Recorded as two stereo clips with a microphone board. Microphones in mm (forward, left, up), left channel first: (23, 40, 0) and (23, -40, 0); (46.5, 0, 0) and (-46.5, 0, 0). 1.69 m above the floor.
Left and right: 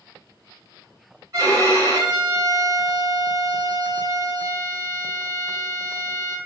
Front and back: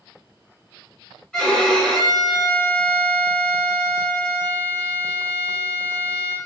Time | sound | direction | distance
1.3 | a violin | 75° right | 1.7 m